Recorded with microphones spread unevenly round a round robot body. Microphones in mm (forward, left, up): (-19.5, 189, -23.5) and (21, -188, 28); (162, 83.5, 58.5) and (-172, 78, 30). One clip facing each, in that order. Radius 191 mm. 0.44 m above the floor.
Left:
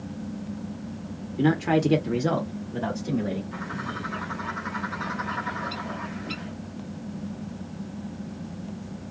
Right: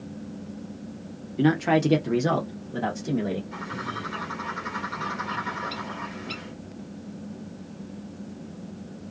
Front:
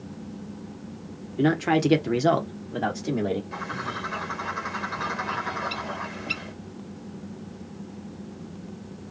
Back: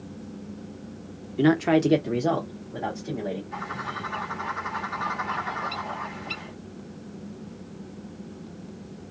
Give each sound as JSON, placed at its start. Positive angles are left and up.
{"t": 1.4, "sound": "a man speaking", "azimuth_deg": 170, "distance_m": 0.7}
{"t": 3.5, "sound": "a bird", "azimuth_deg": 10, "distance_m": 1.7}